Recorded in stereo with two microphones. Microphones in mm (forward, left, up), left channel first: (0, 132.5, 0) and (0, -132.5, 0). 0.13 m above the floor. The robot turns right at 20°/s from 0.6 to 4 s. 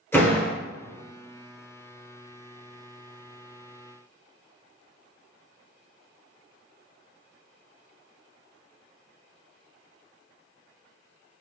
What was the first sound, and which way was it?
A door slam, 10° left (ahead or behind).